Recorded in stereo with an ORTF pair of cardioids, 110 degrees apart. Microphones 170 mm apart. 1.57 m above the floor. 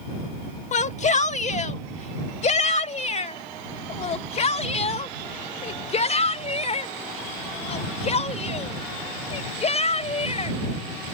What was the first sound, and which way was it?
A shout, 45° left.